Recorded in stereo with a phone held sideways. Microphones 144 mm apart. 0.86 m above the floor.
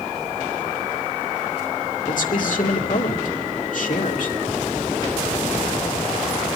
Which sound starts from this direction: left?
A man speaking, at 2.1 s.